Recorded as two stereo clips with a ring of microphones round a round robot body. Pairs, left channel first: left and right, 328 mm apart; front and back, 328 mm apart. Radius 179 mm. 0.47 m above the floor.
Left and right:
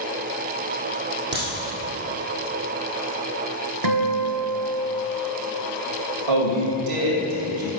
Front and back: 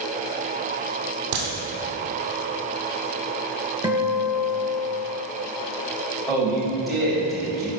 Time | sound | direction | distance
1.3 | a crack | 155° right | 3 m
3.8 | a guitar | 100° right | 1.0 m
6.3 | a man speaking | 90° right | 2.5 m